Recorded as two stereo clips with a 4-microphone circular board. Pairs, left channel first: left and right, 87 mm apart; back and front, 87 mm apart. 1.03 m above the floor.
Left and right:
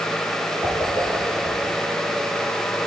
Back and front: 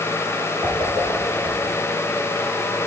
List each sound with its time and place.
0.6 s a whoosh: 50° left, 7 m